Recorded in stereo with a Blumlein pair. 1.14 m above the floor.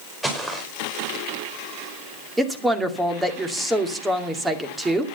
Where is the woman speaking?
5° right, 2.5 m.